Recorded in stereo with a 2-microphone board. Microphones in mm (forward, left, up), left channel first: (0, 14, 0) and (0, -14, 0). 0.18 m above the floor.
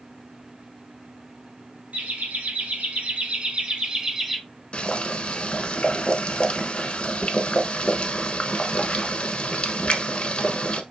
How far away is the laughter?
About 2.5 m.